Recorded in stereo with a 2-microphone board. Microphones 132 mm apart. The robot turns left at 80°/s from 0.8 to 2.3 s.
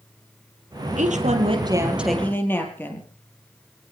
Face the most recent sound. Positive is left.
turn(degrees=165)